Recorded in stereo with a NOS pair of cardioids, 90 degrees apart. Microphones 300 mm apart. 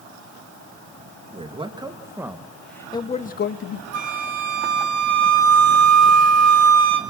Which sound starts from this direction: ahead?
A man speaking, at 1.3 s.